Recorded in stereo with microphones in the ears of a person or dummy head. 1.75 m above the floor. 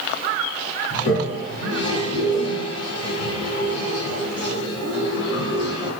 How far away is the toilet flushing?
About 1.2 m.